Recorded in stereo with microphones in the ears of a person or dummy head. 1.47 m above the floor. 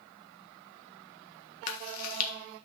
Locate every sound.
1.7 s chewing: 50° left (ahead or behind), 1.4 m